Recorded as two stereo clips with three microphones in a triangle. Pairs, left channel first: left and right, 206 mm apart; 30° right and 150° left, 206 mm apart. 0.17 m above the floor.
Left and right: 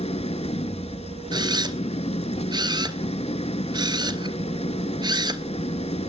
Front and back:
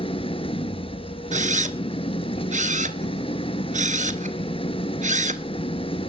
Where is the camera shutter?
160° right, 1.4 m.